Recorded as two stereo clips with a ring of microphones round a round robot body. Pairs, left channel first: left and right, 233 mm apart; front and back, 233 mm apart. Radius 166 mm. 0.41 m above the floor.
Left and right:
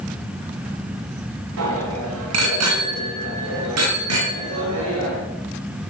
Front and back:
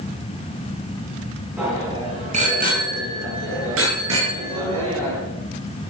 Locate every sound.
1.6 s a bicycle bell: 95° right, 3 m; by 5.2 s 140° right, 6.5 m